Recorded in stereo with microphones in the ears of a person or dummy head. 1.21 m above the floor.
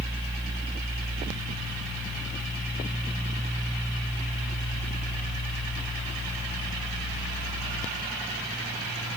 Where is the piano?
No piano in this recording.